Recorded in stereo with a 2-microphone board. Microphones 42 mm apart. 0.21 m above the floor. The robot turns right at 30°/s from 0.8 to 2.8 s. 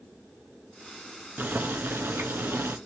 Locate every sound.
1.4 s boiling: 125° right, 1.0 m; by 2.8 s 80° right, 1.0 m